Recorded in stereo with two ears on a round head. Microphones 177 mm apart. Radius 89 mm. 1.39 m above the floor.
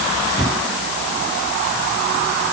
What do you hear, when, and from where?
Only background noise.